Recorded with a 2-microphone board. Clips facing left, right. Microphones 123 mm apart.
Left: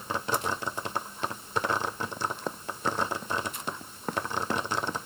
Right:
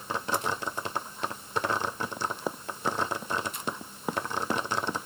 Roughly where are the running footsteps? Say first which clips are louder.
Right 1 dB; centre.